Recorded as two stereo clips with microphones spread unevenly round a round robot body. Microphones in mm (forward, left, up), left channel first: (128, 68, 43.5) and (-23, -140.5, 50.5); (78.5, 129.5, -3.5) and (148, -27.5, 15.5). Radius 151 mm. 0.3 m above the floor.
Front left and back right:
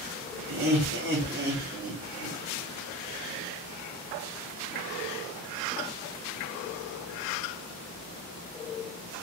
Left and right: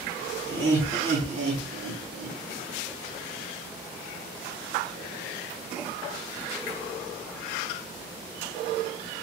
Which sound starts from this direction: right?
Laughter, at 0.5 s.